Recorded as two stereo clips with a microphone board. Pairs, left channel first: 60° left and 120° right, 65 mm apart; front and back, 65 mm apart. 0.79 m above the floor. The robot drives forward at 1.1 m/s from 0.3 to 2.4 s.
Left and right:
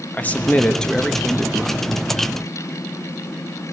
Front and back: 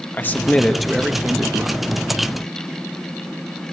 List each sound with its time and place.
0.1 s a man speaking: 25° left, 1.1 m; by 2.0 s 170° left, 1.6 m